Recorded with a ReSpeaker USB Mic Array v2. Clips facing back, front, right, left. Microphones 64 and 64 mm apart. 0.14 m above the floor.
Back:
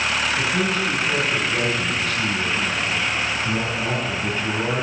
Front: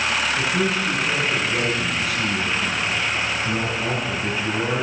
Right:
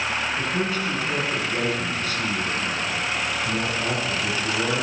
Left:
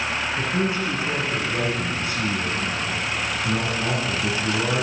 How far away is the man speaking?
About 1.3 m.